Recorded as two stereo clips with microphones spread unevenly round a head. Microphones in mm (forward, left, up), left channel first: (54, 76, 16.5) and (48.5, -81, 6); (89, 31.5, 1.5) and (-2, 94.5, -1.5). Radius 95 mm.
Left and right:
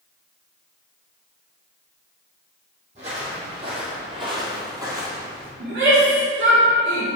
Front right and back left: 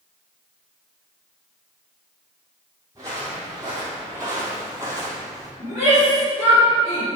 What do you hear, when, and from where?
3.0 s footsteps: 145° right, 3 m; by 5.5 s 170° right, 1.8 m
5.6 s a shout: 90° right, 3.5 m